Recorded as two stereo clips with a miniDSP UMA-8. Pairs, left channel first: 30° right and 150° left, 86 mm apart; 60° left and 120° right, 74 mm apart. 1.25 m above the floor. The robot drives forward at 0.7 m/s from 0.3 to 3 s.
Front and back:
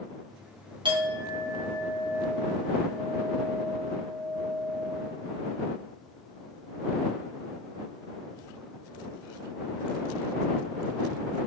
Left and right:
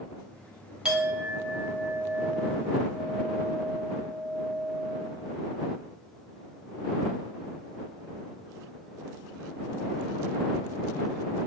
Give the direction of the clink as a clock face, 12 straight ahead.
7 o'clock.